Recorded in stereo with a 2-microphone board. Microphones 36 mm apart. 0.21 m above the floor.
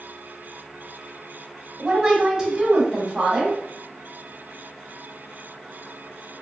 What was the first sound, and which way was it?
A woman speaking, 15° right (ahead or behind).